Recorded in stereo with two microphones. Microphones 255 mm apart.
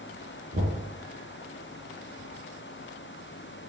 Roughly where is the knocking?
Right.